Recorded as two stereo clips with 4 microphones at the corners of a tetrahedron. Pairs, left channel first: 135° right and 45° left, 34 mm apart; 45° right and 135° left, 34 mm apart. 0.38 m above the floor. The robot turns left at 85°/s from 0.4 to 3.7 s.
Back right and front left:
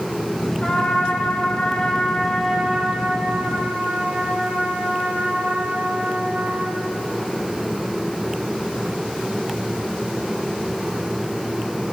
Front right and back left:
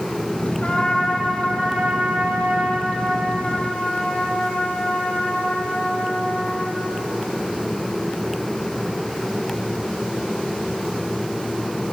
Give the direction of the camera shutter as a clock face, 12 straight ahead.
No camera shutter in this recording.